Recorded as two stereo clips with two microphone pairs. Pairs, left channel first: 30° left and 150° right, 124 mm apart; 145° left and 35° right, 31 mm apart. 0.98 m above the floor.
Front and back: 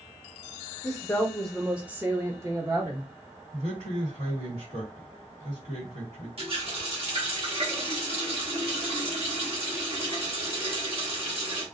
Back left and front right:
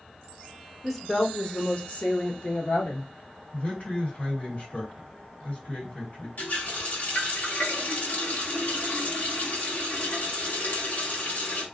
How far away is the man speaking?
About 1.7 m.